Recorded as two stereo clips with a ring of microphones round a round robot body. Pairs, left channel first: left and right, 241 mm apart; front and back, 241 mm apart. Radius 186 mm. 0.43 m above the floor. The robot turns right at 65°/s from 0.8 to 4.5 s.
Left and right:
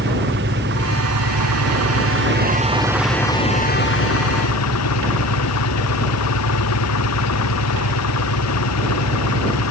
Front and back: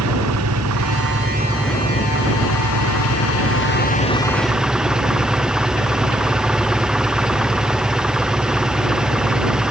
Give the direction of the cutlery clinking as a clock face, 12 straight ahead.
No cutlery clinking in this recording.